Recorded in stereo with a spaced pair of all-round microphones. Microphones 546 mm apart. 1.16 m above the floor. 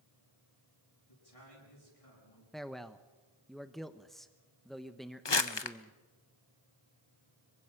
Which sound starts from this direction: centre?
A man speaking, at 2.5 s.